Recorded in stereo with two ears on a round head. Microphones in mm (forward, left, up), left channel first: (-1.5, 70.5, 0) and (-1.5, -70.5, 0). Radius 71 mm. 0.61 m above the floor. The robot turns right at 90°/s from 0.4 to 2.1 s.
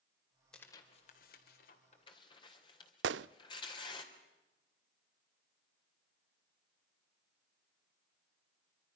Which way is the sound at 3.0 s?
85° right.